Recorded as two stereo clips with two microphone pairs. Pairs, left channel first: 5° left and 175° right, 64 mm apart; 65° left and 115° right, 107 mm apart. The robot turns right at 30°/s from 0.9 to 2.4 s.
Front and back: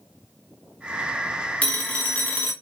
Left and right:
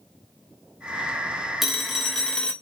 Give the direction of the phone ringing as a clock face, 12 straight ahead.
1 o'clock.